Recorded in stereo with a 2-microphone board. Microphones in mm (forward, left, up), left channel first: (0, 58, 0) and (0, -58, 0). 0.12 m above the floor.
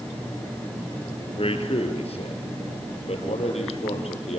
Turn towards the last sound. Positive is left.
turn(degrees=70)  # may be behind; listen again after turning